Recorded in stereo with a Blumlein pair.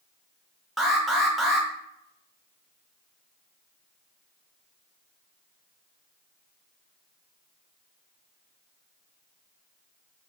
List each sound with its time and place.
0.8 s an alarm: 5° right, 0.7 m